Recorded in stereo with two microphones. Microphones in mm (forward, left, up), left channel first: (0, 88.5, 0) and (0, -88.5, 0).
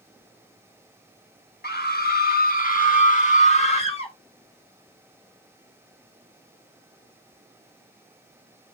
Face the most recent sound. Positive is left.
turn(degrees=30)  # may be behind; listen again after turning